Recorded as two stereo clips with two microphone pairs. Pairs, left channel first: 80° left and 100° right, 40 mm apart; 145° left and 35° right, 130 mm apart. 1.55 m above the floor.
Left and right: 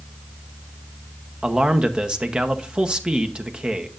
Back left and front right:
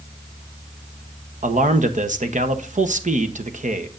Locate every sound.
1.4 s a man speaking: 35° right, 1.0 m